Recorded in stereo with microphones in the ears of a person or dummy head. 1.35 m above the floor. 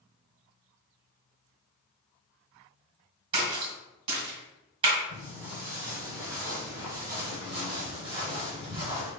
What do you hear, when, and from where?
3.3 s a splash: 30° right (ahead or behind), 1.7 m
5.1 s footsteps: 10° right (ahead or behind), 1.8 m; by 9.1 s 25° right (ahead or behind), 1.7 m